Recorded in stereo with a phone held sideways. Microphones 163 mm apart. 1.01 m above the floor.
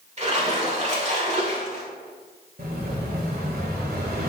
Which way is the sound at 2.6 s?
70° right (ahead or behind).